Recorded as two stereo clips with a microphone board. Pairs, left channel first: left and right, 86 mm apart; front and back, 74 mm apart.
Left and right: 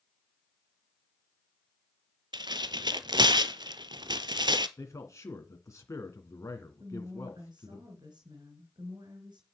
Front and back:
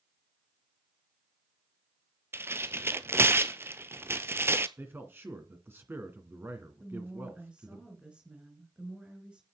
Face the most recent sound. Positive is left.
turn(degrees=-105)